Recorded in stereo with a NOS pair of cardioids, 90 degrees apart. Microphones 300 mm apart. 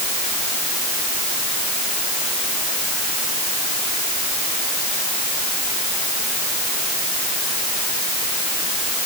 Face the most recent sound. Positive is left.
No sound to turn to.